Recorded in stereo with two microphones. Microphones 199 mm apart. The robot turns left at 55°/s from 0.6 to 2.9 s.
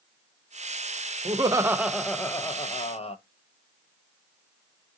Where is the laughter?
140° right, 0.5 m; by 3.2 s 130° left, 0.5 m.